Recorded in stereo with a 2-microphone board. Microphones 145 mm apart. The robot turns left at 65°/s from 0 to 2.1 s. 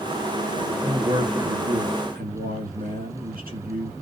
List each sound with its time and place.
0.8 s a man speaking: straight ahead, 2.0 m; by 3.9 s 85° right, 2.0 m